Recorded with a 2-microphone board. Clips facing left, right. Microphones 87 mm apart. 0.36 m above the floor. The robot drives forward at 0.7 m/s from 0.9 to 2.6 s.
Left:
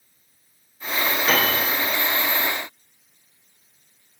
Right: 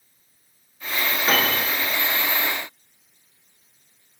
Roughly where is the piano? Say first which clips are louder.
Even; right.